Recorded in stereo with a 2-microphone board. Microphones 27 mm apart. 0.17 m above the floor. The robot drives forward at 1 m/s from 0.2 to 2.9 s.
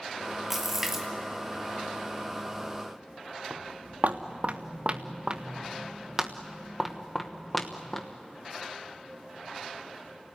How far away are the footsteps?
About 1.7 m.